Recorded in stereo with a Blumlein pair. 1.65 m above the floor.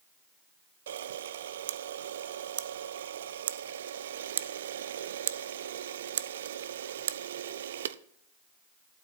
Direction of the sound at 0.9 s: 60° right.